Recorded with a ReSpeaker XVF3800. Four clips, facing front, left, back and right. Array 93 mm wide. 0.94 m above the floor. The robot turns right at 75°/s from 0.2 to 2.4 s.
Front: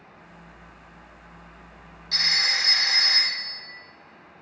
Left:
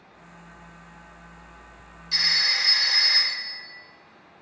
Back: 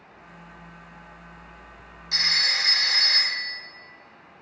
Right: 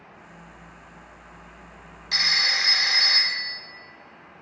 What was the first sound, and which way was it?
A phone ringing, 100° right.